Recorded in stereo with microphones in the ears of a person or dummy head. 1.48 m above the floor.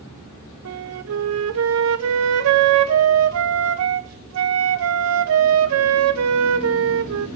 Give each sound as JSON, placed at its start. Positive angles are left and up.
{"t": 0.7, "sound": "a flute", "side_deg": -80, "distance_m": 0.7}